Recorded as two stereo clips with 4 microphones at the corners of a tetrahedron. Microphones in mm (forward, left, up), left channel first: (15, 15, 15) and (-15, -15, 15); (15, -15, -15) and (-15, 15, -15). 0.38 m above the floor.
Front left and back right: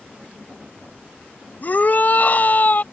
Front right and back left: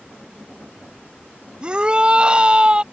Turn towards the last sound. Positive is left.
turn(degrees=75)